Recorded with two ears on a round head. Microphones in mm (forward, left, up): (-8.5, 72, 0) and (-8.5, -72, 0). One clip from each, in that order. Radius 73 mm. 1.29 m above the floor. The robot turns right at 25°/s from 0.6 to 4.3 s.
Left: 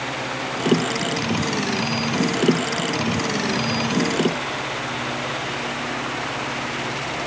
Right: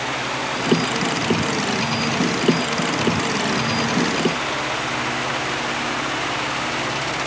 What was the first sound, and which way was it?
Only background noise.